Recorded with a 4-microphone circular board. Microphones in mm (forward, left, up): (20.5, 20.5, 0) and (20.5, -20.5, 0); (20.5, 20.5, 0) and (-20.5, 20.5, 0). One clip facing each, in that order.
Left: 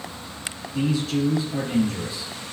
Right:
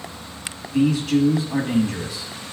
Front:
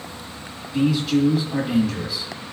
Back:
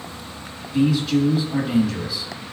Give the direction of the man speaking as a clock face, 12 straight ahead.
3 o'clock.